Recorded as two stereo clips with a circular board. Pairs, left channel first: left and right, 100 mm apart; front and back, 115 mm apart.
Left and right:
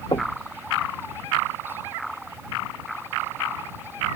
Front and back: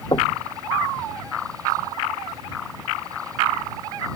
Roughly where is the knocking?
Ahead left.